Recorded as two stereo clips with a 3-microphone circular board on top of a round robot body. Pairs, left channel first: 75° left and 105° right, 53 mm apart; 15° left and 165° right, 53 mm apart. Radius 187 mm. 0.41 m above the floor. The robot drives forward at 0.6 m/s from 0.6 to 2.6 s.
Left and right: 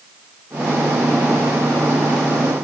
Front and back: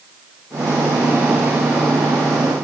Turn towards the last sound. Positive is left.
No sound to turn to.